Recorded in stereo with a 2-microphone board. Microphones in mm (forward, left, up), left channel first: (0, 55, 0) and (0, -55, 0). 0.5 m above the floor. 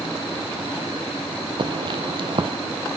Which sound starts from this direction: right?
Footsteps, at 1.6 s.